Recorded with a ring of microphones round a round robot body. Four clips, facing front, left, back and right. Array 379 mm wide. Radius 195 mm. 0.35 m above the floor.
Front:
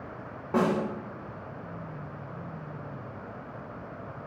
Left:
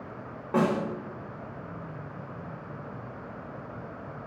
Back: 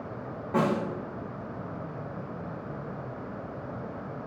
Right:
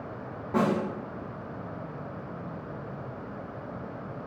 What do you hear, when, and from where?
0.5 s a snare drum: 40° left, 1.1 m